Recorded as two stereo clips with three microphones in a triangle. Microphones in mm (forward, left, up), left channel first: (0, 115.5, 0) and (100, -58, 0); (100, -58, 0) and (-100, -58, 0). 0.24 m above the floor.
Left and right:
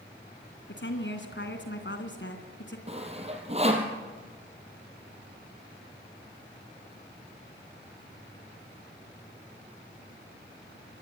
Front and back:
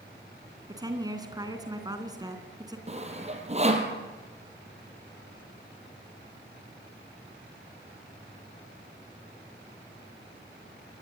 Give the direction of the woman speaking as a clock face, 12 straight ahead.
8 o'clock.